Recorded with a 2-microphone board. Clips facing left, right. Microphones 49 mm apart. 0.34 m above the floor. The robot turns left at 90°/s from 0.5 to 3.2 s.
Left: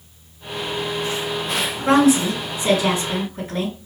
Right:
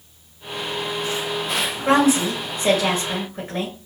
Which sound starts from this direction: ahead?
A woman speaking, at 1.9 s.